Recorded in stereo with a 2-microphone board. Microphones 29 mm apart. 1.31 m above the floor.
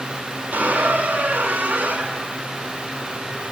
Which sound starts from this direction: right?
A squeak, at 0.5 s.